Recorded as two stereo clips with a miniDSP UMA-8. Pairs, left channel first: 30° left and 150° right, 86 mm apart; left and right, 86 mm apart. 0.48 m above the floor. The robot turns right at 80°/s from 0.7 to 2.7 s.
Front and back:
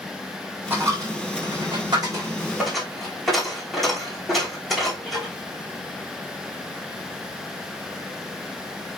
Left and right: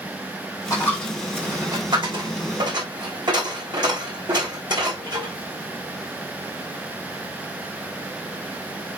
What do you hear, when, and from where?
0.7 s a dropped coin: 140° left, 4.5 m; by 5.3 s 60° right, 4.5 m